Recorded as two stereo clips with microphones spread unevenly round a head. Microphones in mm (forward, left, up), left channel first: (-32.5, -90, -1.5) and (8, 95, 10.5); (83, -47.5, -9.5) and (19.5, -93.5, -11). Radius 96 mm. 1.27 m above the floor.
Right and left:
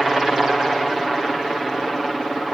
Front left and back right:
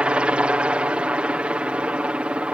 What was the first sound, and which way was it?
A helicopter, 170° left.